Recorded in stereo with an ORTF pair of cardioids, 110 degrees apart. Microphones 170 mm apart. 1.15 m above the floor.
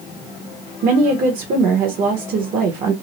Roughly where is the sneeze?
No sneeze in this recording.